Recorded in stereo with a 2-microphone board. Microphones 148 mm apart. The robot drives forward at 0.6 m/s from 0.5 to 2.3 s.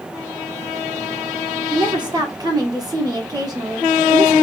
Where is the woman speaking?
30° right (ahead or behind), 0.8 m; by 4.3 s 25° right (ahead or behind), 1.0 m.